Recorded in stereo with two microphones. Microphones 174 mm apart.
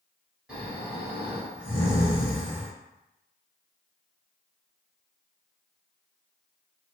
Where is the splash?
I don't hear a splash.